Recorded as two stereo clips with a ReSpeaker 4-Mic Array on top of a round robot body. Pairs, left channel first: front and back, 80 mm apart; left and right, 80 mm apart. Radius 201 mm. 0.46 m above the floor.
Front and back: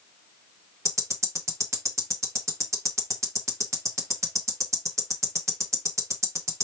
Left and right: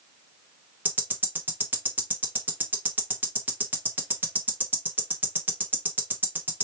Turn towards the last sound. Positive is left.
turn(degrees=-150)